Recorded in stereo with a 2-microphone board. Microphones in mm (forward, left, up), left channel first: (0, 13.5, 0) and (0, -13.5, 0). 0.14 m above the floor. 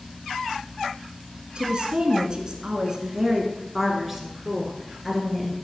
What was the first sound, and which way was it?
A woman speaking, 40° right (ahead or behind).